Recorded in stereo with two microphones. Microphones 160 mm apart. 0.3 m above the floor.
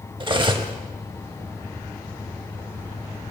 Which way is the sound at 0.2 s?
30° right (ahead or behind).